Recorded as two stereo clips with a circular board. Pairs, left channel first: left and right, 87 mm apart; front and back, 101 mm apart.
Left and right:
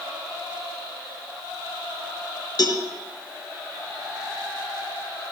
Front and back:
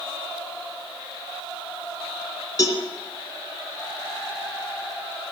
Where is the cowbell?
55° left, 2.5 m.